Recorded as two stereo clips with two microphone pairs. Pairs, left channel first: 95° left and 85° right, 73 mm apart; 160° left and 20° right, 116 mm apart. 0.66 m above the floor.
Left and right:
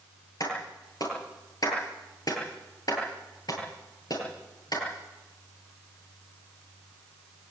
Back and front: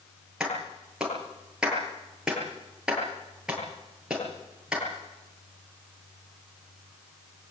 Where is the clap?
65° left, 9.5 m.